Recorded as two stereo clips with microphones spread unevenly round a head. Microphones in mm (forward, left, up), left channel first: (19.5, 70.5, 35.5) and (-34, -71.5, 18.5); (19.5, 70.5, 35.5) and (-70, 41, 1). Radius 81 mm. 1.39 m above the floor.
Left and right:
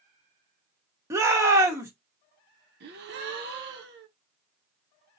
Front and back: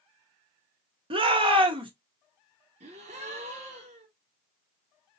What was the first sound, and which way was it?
A shout, straight behind.